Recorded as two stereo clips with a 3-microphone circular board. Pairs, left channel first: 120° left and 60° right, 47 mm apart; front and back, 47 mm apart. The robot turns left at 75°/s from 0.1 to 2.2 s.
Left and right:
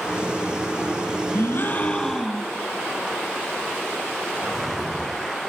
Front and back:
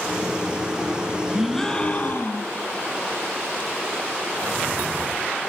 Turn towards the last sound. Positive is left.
turn(degrees=35)